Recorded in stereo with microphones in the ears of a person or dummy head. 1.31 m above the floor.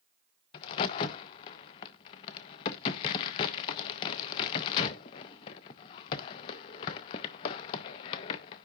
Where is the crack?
25° left (ahead or behind), 0.6 m.